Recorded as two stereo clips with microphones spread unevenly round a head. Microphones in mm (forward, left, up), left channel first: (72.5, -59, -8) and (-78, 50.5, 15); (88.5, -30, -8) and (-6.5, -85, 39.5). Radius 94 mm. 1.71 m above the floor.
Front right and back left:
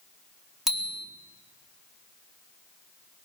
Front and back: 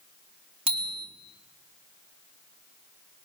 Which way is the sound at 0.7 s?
130° right.